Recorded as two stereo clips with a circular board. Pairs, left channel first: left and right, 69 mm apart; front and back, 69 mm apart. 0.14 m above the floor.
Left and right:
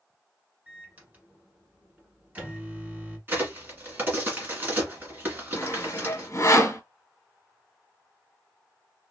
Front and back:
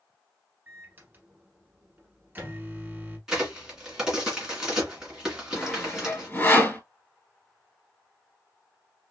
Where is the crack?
105° right, 1.9 m.